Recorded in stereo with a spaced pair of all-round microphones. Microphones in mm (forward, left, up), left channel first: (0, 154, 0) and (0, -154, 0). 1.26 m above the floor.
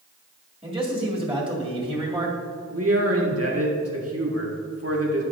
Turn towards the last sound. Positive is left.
turn(degrees=-50)  # may be behind; listen again after turning